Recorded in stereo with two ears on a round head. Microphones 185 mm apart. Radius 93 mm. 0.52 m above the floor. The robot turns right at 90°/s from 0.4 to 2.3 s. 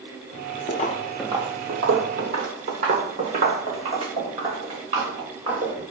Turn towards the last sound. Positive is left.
turn(degrees=-25)  # may be behind; listen again after turning